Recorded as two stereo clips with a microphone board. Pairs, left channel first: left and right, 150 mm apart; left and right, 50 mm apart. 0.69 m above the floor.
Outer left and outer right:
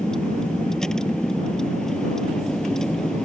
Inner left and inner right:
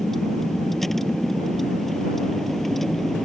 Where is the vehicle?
5° left (ahead or behind).